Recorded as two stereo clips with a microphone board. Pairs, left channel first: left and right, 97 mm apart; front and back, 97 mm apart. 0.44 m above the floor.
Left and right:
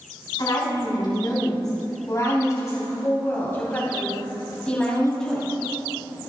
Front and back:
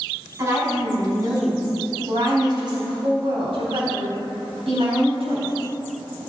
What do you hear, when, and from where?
0.4 s a woman speaking: 125° left, 4 m; by 5.5 s 175° left, 3.5 m